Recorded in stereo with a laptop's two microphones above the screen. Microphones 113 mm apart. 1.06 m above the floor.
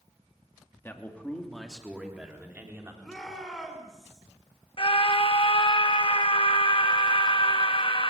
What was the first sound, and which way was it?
A man speaking, 20° left (ahead or behind).